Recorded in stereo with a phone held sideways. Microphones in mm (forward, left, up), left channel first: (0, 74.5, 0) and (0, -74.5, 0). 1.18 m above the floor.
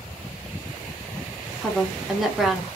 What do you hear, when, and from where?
1.6 s a woman speaking: centre (ahead or behind), 0.9 m